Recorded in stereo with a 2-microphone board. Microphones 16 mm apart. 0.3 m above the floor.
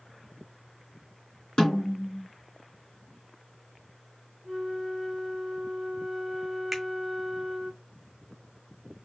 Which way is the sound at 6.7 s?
15° right (ahead or behind).